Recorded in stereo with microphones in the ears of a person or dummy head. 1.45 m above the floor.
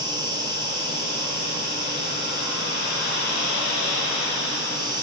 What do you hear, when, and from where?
0.0 s an insect: 20° right (ahead or behind), 8.5 m